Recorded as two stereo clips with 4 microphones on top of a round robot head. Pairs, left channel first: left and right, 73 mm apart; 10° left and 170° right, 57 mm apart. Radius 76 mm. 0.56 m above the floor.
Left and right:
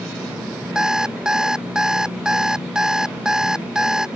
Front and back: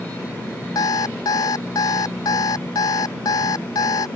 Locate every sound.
0.8 s an alarm clock: 10° right